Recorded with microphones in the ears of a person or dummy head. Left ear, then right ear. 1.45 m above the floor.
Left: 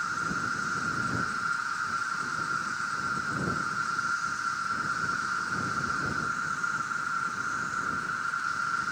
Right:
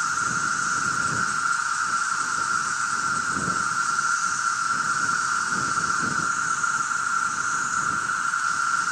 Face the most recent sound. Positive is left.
turn(degrees=-30)  # may be behind; listen again after turning